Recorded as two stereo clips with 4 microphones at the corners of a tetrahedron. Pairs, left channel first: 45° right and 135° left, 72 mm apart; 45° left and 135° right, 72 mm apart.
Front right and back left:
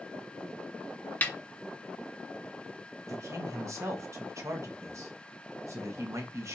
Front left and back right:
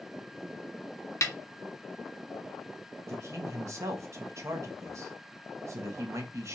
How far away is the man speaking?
About 1.0 m.